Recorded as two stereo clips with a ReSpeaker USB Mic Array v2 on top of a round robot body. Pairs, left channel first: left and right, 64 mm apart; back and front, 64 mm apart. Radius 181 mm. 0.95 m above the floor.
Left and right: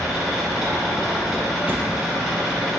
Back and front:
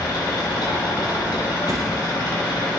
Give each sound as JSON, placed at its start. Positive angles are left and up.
{"t": 0.0, "sound": "an engine running", "azimuth_deg": -175, "distance_m": 0.9}
{"t": 1.7, "sound": "a door slam", "azimuth_deg": -30, "distance_m": 0.7}